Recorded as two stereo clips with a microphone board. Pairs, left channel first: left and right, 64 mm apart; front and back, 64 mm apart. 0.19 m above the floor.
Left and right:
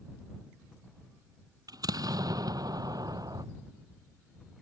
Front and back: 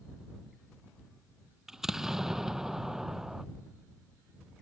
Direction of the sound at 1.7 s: 100° right.